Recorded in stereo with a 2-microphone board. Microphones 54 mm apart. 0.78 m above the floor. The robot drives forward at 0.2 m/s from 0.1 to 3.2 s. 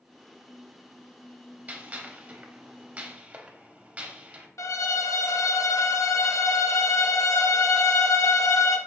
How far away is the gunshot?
About 0.6 m.